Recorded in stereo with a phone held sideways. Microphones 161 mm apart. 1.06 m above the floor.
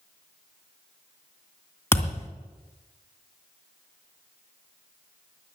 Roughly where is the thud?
Centre.